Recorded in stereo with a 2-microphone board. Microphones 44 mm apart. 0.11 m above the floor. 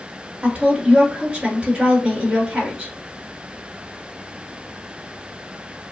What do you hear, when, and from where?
0.4 s a woman speaking: 25° right (ahead or behind), 1.6 m